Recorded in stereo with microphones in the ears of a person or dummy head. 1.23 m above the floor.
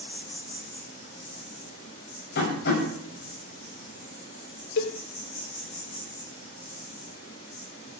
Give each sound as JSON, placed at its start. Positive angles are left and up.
{"t": 0.0, "sound": "an insect", "side_deg": 35, "distance_m": 9.0}
{"t": 2.4, "sound": "tapping", "side_deg": 55, "distance_m": 8.0}
{"t": 4.8, "sound": "a cowbell", "side_deg": 65, "distance_m": 1.4}